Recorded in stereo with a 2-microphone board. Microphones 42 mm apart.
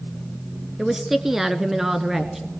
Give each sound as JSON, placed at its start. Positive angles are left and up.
{"t": 0.8, "sound": "a woman speaking", "side_deg": -10, "distance_m": 1.4}